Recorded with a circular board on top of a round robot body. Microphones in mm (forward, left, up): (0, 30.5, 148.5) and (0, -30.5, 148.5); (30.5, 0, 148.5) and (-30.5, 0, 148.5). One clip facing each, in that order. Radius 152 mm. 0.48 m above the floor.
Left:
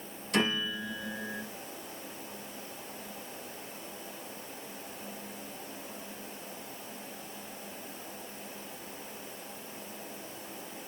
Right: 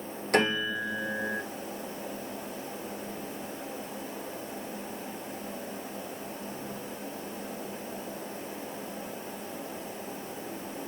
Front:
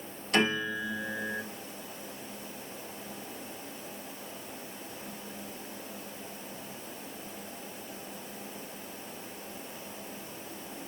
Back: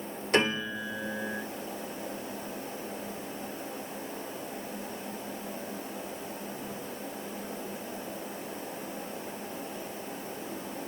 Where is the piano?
125° right, 1.9 m.